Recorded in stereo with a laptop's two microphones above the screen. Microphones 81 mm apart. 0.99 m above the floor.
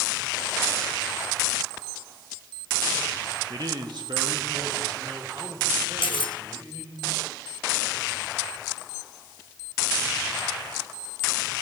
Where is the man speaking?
50° right (ahead or behind), 1.1 m; by 7.0 s 85° right, 6 m.